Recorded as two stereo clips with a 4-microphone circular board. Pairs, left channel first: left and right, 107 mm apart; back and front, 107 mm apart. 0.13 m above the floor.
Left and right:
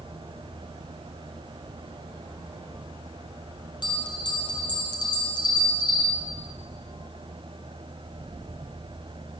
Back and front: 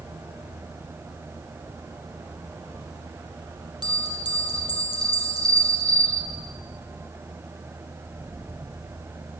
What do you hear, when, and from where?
3.8 s a bell: 45° left, 3.5 m